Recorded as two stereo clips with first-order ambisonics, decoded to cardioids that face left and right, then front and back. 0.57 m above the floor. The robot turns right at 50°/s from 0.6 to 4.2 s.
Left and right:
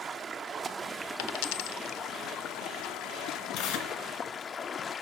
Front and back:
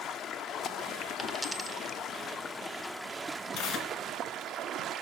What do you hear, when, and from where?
0.0 s running water: 35° right, 0.8 m; by 5.0 s 145° left, 0.8 m
1.2 s a dropped coin: 75° left, 0.5 m; by 2.0 s 120° left, 0.5 m
3.5 s tearing paper: 50° left, 2.5 m; by 3.9 s 70° left, 2.5 m